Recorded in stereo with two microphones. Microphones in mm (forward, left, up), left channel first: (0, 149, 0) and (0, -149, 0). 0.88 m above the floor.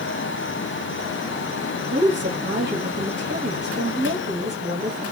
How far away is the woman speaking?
About 0.8 m.